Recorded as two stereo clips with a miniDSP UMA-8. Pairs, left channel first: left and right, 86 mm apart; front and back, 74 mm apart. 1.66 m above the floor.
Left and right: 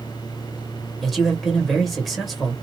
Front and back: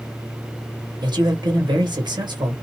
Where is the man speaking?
Straight behind, 1.5 m.